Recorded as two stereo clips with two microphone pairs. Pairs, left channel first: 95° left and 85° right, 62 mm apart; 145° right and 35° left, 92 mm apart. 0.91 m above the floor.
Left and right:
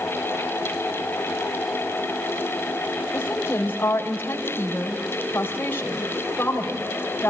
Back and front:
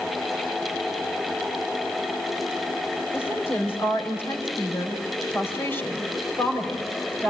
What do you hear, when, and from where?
3.1 s a woman speaking: 150° left, 4.5 m